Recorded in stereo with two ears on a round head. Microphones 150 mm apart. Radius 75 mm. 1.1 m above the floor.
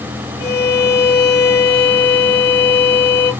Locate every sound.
0.4 s a violin: 75° left (ahead or behind), 2 m